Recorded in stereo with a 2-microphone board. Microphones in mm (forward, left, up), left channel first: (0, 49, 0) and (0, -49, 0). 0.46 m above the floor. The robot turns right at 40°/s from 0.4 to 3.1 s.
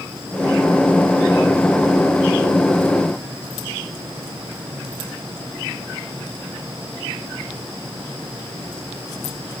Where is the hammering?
No hammering in this recording.